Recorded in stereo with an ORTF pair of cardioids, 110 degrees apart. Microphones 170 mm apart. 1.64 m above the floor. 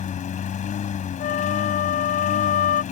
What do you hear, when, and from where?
0.0 s a lawn mower: 50° left
1.2 s a flute: 50° left